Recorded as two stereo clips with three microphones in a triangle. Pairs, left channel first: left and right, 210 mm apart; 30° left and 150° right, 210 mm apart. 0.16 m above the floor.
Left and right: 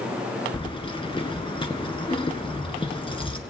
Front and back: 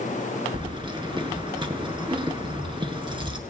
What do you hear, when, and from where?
0.5 s keys jangling: 150° left, 1.6 m